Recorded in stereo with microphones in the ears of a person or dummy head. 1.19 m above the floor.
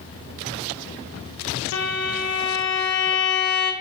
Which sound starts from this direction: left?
A violin, at 1.7 s.